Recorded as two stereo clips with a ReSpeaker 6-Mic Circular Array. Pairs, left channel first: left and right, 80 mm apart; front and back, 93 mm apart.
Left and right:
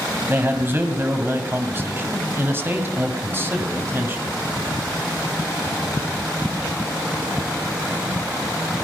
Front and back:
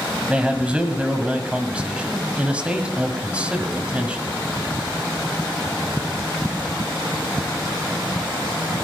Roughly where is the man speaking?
Behind right.